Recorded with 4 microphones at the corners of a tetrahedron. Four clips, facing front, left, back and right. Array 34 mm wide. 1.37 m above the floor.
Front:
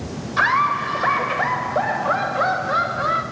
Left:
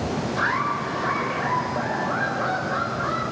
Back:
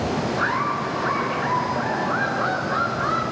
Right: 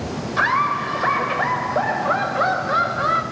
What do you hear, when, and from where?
0.4 s laughter: 35° right, 6.5 m; by 3.2 s 55° right, 8.5 m